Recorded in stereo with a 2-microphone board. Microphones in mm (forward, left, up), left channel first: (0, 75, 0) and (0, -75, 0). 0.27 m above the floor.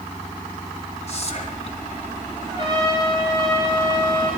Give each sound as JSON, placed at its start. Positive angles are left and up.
{"t": 1.1, "sound": "whispering", "side_deg": 45, "distance_m": 2.0}
{"t": 2.5, "sound": "a trumpet", "side_deg": -35, "distance_m": 7.0}